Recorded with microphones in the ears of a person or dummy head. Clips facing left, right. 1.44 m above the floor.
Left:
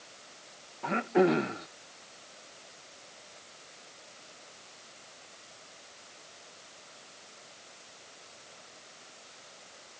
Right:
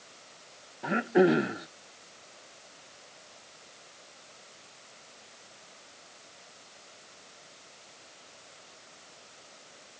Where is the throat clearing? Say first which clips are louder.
Right 2 dB; 5° right (ahead or behind).